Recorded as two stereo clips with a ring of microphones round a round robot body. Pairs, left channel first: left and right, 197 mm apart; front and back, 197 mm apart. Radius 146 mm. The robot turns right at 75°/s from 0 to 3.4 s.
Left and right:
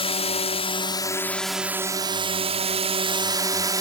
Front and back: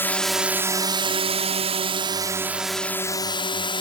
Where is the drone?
65° left; by 3.8 s 40° right.